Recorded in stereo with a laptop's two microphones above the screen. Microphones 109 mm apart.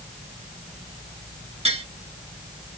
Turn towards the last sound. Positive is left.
turn(degrees=-65)  # may be behind; listen again after turning